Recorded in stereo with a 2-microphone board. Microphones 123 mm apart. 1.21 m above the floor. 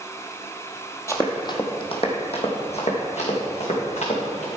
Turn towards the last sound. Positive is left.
turn(degrees=70)  # may be behind; listen again after turning